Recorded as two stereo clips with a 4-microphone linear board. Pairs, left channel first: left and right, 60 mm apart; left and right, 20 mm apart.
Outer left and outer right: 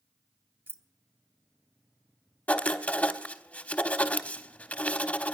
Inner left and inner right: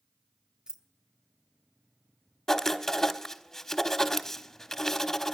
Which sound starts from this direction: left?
Writing, at 2.5 s.